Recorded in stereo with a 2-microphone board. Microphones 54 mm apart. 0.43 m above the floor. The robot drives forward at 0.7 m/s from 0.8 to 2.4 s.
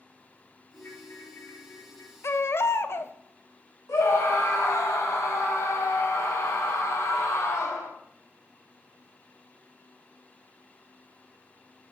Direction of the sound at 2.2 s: 55° left (ahead or behind).